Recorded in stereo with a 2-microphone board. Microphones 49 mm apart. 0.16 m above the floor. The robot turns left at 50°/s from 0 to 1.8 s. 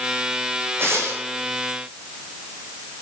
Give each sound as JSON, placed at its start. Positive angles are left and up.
{"t": 0.8, "sound": "tearing paper", "side_deg": -55, "distance_m": 7.5}